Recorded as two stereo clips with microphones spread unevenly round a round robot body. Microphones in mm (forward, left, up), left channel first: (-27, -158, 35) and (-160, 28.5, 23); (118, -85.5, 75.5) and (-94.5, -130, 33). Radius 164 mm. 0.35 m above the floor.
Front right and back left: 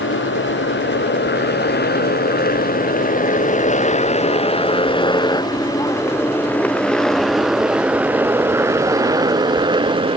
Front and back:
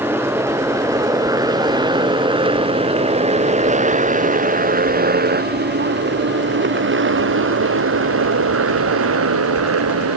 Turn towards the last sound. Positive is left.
turn(degrees=-170)